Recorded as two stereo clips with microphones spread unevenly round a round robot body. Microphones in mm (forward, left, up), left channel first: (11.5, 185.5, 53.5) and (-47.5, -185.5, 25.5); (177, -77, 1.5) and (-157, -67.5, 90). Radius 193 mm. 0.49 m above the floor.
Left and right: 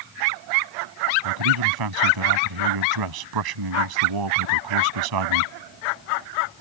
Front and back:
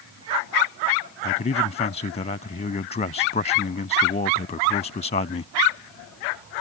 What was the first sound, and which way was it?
A man speaking, 70° right.